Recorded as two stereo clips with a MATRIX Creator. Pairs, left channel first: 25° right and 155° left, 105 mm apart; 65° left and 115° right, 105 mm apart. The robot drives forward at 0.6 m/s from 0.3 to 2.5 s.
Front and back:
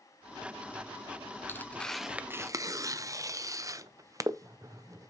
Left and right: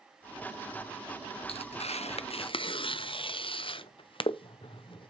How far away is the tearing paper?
About 0.8 m.